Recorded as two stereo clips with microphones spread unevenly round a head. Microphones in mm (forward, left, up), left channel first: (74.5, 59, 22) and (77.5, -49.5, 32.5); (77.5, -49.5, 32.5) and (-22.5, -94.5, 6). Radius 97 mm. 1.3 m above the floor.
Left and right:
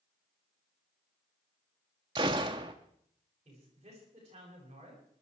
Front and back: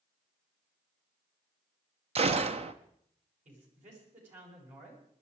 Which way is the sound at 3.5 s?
150° right.